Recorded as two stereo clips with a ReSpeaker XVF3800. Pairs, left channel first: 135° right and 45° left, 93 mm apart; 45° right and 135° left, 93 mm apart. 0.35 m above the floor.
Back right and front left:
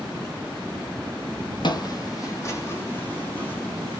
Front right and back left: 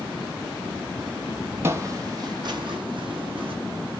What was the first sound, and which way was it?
Footsteps, 165° right.